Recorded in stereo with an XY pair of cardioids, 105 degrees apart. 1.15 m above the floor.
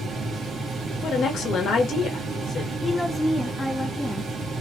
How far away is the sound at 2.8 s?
About 1.2 m.